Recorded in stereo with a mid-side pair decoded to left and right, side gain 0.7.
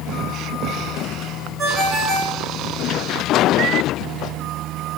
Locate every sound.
1.6 s a ringtone: 35° right, 3.5 m